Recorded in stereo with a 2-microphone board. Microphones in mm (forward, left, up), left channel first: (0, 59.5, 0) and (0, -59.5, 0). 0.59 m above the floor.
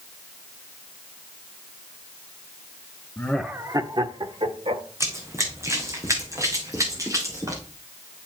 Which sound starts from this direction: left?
Laughter, at 3.2 s.